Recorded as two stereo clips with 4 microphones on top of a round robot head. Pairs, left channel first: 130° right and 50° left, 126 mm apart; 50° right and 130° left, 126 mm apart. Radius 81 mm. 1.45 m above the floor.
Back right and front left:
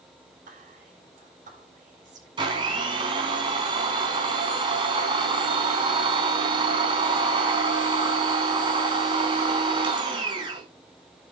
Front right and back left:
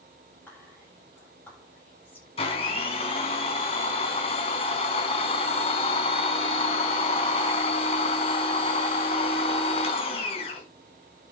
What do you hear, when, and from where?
0.5 s whispering: 25° left, 7.5 m
2.4 s a blender: 5° right, 4 m